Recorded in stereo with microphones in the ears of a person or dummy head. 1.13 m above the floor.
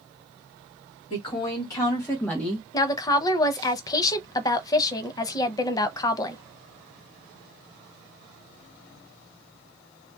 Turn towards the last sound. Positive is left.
turn(degrees=20)  # may be behind; listen again after turning